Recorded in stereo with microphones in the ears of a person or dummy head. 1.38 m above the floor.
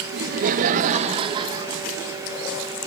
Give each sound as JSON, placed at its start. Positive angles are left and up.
{"t": 0.1, "sound": "laughter", "side_deg": -60, "distance_m": 1.4}